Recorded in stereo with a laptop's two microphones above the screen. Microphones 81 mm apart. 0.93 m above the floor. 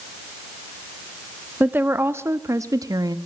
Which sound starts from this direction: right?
A woman speaking, at 1.6 s.